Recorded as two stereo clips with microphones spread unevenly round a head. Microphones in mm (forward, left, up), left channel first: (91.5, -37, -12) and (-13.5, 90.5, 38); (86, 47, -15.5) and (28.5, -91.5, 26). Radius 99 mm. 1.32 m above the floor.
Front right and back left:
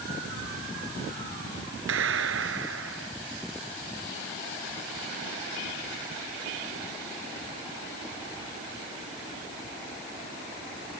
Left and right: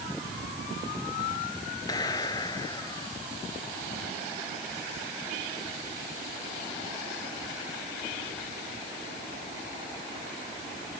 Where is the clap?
140° left.